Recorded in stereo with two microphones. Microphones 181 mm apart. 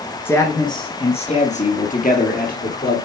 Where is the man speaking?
15° left (ahead or behind), 1.5 m; by 3.0 s 55° left (ahead or behind), 3 m.